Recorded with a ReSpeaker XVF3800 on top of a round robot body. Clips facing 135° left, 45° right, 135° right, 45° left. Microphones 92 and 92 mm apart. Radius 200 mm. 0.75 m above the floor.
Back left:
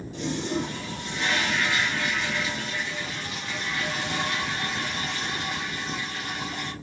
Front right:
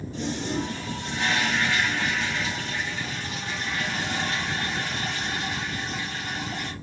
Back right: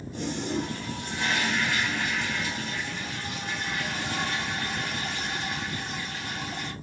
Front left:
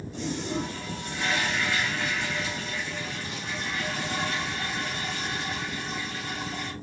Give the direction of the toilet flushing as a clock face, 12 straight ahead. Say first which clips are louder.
Back left 1 dB, back right 1 dB; 3 o'clock.